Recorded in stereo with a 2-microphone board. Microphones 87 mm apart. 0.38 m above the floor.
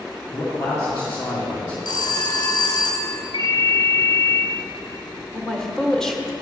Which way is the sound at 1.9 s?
60° left (ahead or behind).